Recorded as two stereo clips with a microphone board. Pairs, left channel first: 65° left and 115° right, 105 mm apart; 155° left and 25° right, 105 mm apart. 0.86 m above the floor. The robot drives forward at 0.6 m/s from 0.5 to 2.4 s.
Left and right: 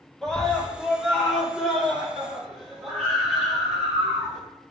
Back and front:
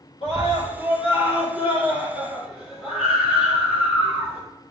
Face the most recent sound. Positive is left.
turn(degrees=160)